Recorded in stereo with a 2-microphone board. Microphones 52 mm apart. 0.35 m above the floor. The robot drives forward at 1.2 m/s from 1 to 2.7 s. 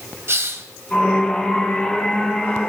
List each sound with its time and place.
0.3 s a hiss: 55° right (ahead or behind), 0.9 m